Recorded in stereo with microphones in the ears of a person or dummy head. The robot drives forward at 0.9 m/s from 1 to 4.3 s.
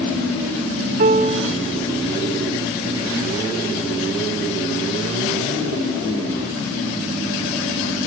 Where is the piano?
35° right (ahead or behind), 1.0 m; by 1.6 s 25° right (ahead or behind), 1.2 m.